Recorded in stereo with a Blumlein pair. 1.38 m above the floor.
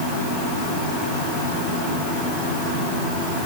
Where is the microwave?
No microwave in this recording.